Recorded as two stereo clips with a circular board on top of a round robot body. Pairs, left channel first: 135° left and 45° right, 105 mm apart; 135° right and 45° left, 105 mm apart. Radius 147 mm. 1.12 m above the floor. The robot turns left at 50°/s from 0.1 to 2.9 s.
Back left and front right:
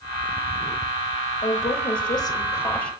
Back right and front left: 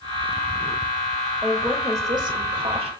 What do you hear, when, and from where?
1.4 s a woman speaking: 130° left, 2.5 m; by 2.9 s 55° left, 2.5 m